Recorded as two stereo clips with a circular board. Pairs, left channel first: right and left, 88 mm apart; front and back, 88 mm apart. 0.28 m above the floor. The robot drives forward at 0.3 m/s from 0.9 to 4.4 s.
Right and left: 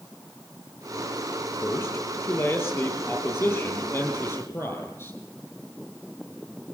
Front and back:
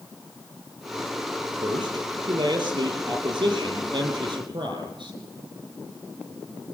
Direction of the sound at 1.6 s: 145° right.